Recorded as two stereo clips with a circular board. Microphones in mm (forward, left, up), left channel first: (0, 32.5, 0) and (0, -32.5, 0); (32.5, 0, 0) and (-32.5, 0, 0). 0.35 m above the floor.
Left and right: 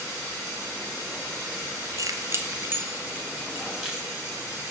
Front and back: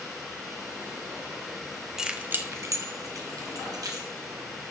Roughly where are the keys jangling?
Right.